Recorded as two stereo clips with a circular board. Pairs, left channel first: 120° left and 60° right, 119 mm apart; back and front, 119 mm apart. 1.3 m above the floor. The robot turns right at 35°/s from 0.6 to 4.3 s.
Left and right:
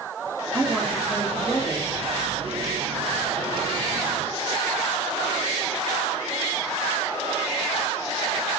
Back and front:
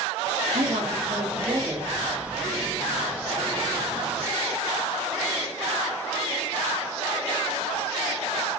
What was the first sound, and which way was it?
A man speaking, 20° left.